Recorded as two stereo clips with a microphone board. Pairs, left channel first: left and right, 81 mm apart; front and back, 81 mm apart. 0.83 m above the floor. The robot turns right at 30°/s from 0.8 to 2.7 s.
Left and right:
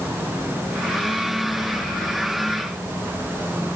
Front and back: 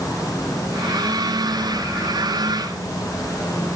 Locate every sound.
Only background noise.